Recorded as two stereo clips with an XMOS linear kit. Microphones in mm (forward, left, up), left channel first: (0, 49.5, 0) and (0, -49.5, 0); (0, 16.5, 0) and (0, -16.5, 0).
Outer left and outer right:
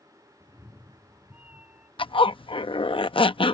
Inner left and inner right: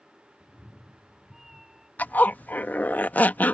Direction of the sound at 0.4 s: 20° right (ahead or behind).